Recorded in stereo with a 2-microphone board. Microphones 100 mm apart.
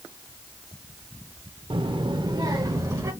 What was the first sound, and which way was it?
A child speaking, 55° right (ahead or behind).